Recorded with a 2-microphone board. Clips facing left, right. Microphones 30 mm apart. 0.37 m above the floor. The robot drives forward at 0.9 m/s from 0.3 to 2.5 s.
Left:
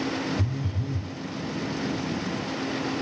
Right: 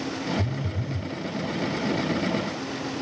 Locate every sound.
0.4 s a phone buzzing: 30° left (ahead or behind), 3 m; by 1.1 s 35° left (ahead or behind), 2.5 m